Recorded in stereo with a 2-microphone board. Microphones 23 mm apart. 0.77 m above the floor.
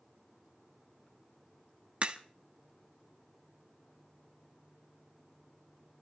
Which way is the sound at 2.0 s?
60° right (ahead or behind).